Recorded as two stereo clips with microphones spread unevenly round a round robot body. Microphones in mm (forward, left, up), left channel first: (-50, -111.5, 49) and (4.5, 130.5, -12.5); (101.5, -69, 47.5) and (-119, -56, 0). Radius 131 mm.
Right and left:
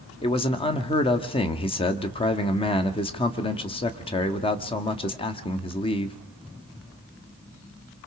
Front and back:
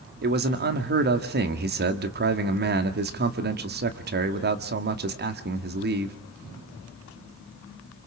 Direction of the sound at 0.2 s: 175° right.